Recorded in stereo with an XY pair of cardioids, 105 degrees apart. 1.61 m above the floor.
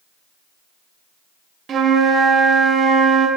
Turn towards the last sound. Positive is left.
turn(degrees=-55)